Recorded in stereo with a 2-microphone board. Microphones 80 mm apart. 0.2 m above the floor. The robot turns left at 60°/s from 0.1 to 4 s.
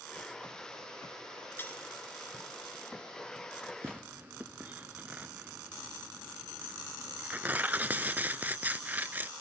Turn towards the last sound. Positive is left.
turn(degrees=-20)  # may be behind; listen again after turning